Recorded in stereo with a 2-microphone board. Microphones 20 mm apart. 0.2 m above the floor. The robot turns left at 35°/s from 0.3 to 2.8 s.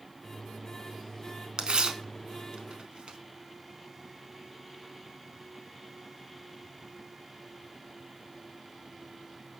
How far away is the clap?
I don't hear a clap.